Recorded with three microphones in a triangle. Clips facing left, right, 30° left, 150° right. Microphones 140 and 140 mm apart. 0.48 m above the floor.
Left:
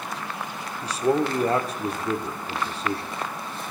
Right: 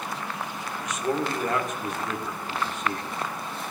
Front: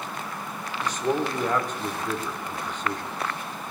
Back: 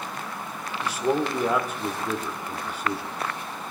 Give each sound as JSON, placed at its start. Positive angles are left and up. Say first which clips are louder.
{"t": 0.8, "sound": "a man speaking", "louder": "left 5 dB, back 1 dB", "azimuth_deg": 130, "distance_m": 1.2}